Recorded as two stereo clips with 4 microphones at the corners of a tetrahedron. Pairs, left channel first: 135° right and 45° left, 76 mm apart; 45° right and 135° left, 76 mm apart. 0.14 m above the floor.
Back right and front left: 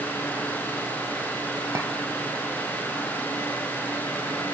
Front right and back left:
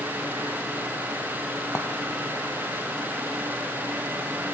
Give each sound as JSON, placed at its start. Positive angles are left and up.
{"t": 1.8, "sound": "a clink", "azimuth_deg": 5, "distance_m": 2.5}